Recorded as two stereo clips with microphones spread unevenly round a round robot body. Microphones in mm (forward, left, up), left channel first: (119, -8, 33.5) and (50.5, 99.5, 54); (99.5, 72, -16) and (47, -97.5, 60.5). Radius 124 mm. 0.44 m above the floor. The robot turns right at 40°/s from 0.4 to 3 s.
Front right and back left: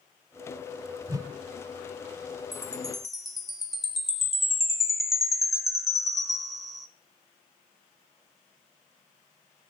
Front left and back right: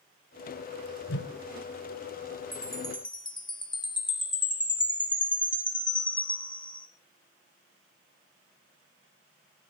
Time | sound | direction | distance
1.1 | a whoosh | 55° left | 1.4 m
2.5 | a chime | 10° left | 1.7 m